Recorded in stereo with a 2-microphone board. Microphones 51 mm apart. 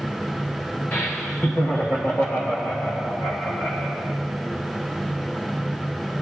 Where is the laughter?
35° left (ahead or behind), 0.6 m; by 4.0 s 60° left (ahead or behind), 2.5 m.